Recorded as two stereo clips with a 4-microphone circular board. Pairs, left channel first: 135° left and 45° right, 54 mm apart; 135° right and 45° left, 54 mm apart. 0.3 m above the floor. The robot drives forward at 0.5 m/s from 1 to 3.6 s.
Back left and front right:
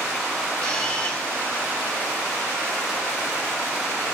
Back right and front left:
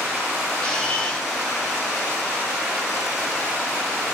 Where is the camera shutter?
175° left, 1.2 m.